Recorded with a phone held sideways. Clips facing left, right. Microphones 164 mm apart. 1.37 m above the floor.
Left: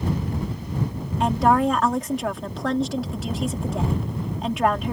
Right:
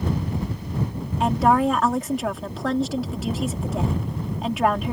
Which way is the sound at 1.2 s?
Centre (ahead or behind).